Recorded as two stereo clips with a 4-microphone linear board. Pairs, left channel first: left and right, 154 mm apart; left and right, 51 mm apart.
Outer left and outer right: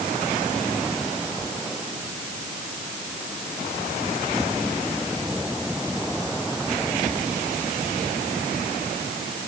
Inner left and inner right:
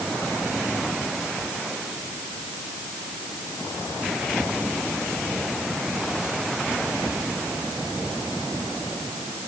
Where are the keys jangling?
No keys jangling in this recording.